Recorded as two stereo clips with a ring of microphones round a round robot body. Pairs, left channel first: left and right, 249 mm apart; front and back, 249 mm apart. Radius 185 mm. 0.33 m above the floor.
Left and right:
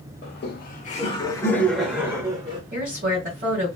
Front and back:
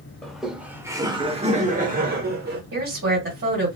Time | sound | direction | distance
0.2 | laughter | 85° left | 1.1 m
2.7 | a woman speaking | 140° right | 2 m